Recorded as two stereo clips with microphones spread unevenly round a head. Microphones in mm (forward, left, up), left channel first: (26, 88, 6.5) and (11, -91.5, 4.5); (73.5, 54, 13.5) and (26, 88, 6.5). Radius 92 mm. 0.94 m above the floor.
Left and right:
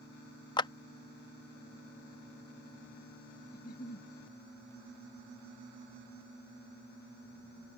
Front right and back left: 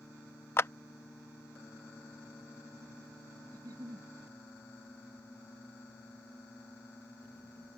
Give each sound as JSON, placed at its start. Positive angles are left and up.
{"t": 0.6, "sound": "a clap", "azimuth_deg": 20}
{"t": 3.5, "sound": "a giggle", "azimuth_deg": 130}